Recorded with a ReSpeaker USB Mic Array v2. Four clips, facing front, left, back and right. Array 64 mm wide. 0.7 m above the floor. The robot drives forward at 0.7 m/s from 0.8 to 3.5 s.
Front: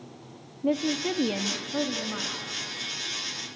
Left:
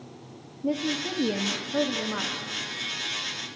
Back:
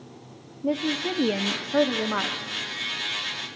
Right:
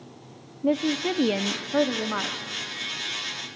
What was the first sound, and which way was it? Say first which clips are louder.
A woman speaking: right 4 dB, even; 60° right.